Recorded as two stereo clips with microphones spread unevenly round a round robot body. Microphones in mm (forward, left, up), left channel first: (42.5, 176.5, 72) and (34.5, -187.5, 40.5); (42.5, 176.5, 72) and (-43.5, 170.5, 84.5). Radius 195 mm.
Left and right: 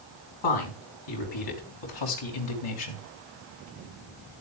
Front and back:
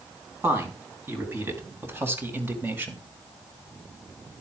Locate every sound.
0.4 s a woman speaking: 120° left, 5 m; by 3.0 s 115° left, 3 m